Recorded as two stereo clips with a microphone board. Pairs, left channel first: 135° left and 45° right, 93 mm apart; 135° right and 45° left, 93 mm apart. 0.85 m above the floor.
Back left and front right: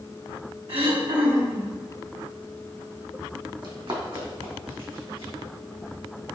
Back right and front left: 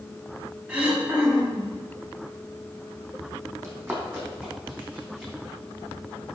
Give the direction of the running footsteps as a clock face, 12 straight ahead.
1 o'clock.